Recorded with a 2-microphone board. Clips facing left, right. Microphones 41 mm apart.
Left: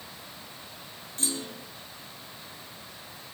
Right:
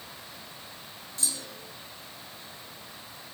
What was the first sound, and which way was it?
A clunk, 40° left (ahead or behind).